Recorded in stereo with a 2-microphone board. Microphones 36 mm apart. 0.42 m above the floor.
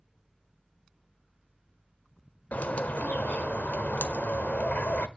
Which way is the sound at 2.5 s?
55° left (ahead or behind).